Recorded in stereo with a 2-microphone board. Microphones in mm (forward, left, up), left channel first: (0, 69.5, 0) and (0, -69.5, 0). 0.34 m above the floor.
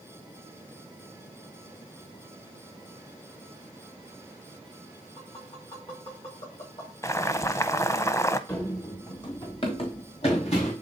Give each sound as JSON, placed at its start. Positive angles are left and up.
{"t": 5.2, "sound": "tapping", "side_deg": 45, "distance_m": 6.5}
{"t": 7.0, "sound": "boiling", "side_deg": 20, "distance_m": 0.6}
{"t": 8.5, "sound": "running footsteps", "side_deg": 20, "distance_m": 2.5}